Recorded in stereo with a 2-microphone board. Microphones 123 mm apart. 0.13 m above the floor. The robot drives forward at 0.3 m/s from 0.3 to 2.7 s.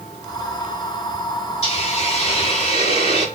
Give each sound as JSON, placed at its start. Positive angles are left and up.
{"t": 1.6, "sound": "a hiss", "side_deg": 60, "distance_m": 8.0}